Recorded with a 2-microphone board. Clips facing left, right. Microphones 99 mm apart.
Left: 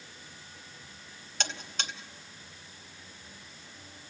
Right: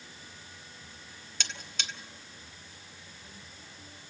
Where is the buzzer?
45° left (ahead or behind), 1.6 m.